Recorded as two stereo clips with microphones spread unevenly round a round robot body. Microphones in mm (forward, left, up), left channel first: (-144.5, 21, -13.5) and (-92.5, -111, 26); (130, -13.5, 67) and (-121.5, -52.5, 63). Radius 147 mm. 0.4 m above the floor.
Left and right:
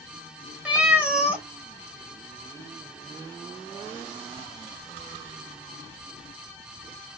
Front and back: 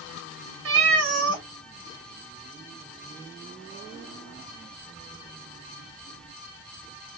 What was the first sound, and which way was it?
A cat meowing, 155° right.